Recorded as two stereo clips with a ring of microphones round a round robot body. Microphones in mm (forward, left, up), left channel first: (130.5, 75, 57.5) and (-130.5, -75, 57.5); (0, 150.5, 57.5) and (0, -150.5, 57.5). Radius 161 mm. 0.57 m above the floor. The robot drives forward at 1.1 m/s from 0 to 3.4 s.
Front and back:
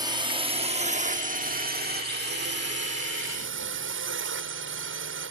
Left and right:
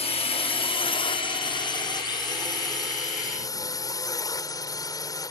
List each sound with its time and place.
0.0 s a drone: 145° left; by 5.3 s 165° left